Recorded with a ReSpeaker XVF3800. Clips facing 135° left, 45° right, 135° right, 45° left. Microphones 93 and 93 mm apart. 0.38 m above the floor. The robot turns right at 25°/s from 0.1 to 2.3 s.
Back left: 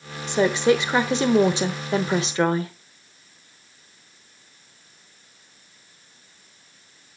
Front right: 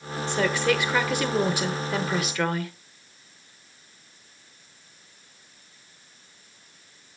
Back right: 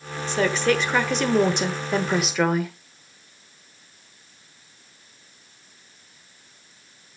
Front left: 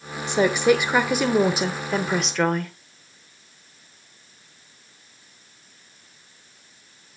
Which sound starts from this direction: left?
A woman speaking, at 0.3 s.